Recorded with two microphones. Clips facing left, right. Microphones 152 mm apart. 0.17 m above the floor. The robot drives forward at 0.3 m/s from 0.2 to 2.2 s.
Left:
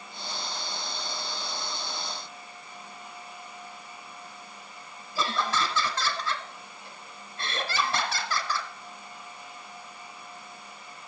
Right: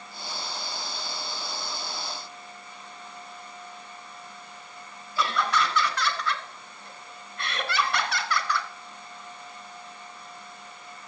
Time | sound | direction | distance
5.2 | laughter | 25° left (ahead or behind) | 1.2 m